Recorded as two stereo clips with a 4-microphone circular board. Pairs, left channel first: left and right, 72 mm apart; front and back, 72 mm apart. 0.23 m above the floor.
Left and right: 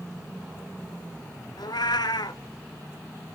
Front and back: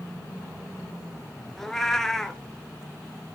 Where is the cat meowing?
85° left, 0.8 m.